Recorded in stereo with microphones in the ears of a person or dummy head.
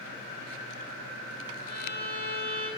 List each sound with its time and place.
1.7 s a violin: 50° right (ahead or behind), 4.5 m